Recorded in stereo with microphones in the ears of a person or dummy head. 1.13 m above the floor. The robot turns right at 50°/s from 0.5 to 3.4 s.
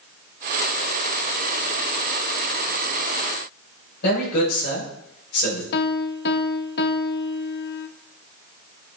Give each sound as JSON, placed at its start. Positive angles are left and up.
{"t": 4.0, "sound": "a man speaking", "side_deg": 65, "distance_m": 6.0}
{"t": 5.7, "sound": "a piano", "side_deg": 60, "distance_m": 0.6}